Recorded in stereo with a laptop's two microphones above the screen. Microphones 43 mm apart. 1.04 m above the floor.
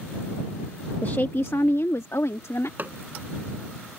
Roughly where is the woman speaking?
Left.